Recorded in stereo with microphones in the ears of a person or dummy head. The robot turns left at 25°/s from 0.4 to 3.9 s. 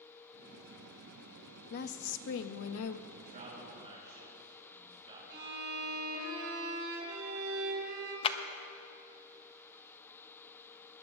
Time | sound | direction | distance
1.7 | a woman speaking | 130° left | 0.7 m
3.1 | a man speaking | 55° right (ahead or behind) | 6 m
5.3 | a violin | 55° right (ahead or behind) | 3.5 m
8.2 | a clap | 35° left (ahead or behind) | 0.7 m